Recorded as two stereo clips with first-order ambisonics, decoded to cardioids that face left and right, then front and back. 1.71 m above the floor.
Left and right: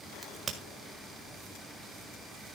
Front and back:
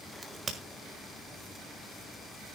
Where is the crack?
140° right, 1.6 m.